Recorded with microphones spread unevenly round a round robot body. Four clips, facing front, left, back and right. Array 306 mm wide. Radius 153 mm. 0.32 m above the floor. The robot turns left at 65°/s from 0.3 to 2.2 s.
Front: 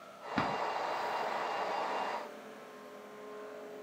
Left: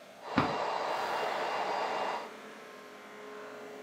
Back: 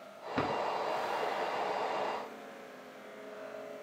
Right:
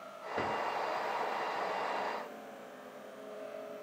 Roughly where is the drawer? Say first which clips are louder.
Left 5 dB, back 1 dB; left.